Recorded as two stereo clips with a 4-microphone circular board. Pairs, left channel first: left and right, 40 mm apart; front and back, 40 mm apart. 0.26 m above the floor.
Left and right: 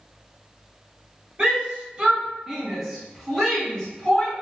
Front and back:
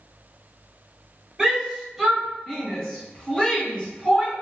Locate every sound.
1.4 s a shout: 110° right, 1.5 m; by 4.4 s 30° left, 1.6 m